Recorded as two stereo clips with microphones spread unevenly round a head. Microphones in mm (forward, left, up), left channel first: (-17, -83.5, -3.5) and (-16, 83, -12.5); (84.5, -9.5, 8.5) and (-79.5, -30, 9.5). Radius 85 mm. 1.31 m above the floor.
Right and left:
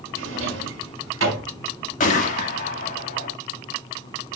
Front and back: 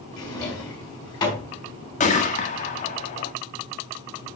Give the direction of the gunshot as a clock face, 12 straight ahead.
1 o'clock.